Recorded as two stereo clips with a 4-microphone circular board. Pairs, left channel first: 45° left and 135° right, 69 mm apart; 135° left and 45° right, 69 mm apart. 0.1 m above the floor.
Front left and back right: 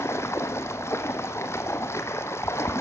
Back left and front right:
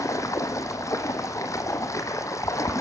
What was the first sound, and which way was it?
Running water, 95° left.